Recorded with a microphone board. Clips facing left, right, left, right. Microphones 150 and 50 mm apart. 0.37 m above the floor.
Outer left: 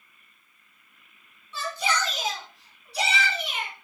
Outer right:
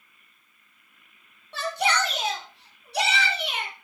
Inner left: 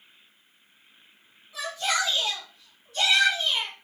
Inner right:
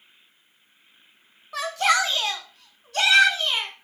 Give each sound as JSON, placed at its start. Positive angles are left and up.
{"t": 1.5, "sound": "a shout", "side_deg": -70, "distance_m": 2.5}